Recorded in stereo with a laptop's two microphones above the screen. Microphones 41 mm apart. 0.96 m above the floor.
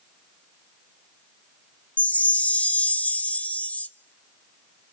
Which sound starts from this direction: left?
A chime, at 2.0 s.